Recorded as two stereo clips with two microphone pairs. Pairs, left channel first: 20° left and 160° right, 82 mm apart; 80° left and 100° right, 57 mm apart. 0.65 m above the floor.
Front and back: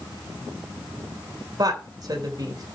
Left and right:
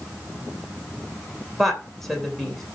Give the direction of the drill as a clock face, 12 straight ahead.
No drill in this recording.